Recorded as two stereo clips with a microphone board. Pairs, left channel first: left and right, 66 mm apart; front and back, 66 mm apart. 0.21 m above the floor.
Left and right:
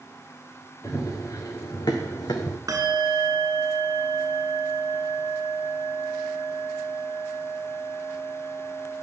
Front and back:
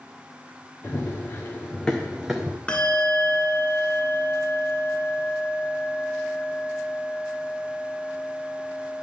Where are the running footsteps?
55° left, 1.7 m; by 2.6 s 105° left, 0.8 m.